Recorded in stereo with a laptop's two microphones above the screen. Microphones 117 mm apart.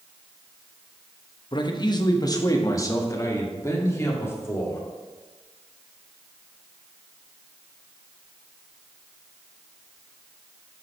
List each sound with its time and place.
1.5 s a man speaking: 40° left (ahead or behind), 1.0 m; by 4.8 s 20° left (ahead or behind), 2.5 m